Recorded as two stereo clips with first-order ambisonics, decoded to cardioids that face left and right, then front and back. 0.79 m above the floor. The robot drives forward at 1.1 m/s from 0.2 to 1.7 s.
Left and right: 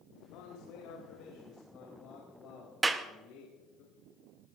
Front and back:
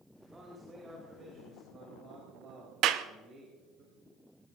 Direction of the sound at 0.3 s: 105° left.